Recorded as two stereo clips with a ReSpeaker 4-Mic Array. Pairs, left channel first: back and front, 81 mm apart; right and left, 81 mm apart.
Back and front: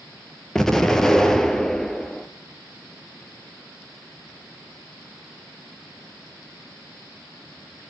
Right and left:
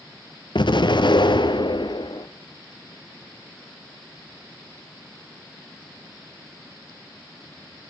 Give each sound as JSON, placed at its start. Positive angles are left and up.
{"t": 0.6, "sound": "an explosion", "azimuth_deg": -95, "distance_m": 1.8}